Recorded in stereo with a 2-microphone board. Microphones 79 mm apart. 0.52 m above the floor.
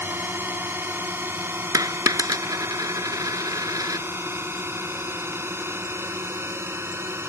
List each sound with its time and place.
0.0 s a drone: 25° right (ahead or behind); by 7.3 s 30° right (ahead or behind)
1.7 s a dropped coin: 45° right (ahead or behind)